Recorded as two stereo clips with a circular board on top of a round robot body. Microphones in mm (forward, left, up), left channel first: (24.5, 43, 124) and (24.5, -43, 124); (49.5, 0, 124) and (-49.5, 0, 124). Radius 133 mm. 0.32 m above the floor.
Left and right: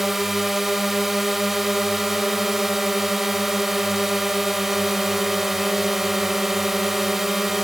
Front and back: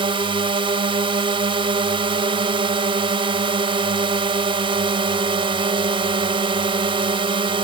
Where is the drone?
175° right.